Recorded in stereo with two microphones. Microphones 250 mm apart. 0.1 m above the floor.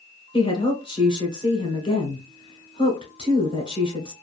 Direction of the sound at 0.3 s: 20° left (ahead or behind).